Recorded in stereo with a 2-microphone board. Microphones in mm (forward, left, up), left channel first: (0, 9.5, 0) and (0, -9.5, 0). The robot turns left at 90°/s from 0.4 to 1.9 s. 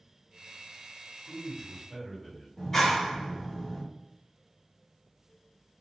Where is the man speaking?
105° right, 1.6 m; by 2.5 s 170° right, 1.6 m.